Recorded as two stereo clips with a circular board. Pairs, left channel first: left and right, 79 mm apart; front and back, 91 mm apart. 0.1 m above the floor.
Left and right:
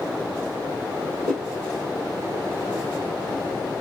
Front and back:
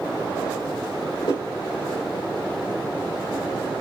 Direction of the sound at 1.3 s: 15° left.